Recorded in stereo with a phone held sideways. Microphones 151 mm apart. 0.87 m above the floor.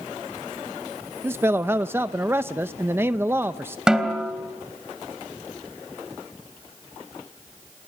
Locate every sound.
1.2 s a man speaking: 15° right (ahead or behind), 0.6 m
3.9 s a snare drum: 5° right (ahead or behind), 2.5 m